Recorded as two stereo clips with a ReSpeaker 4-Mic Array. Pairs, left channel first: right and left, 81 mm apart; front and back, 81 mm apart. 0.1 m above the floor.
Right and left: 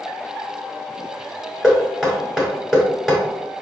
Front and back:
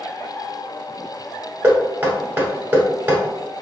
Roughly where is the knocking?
Behind.